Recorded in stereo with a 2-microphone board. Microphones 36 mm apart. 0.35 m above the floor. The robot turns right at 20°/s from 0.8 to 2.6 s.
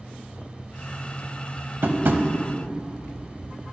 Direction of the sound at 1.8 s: 65° right (ahead or behind).